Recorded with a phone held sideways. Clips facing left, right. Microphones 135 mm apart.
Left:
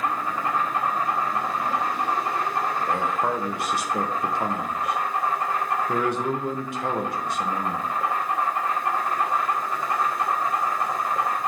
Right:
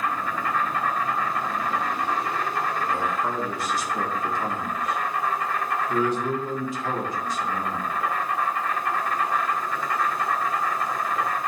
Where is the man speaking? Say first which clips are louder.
Left 2 dB; 70° left (ahead or behind), 1.4 m.